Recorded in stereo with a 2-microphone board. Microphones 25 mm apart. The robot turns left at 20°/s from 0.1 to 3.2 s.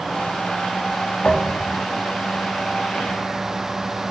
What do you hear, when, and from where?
1.2 s a thud: 60° left (ahead or behind), 3 m; by 1.8 s 50° left (ahead or behind), 3 m